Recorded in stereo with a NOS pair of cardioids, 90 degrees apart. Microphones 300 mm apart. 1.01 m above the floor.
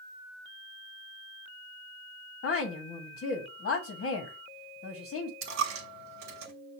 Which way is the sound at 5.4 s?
65° right.